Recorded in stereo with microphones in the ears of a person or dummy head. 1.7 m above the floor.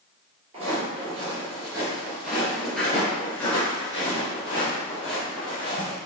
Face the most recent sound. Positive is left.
turn(degrees=35)  # may be behind; listen again after turning